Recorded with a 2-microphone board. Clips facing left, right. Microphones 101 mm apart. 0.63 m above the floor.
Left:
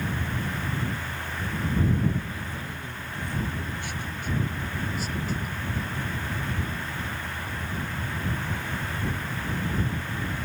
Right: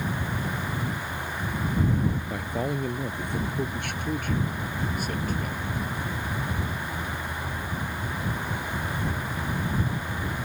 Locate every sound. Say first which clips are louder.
2.3 s a man speaking: right 7 dB; 65° right (ahead or behind); by 5.7 s 55° right (ahead or behind)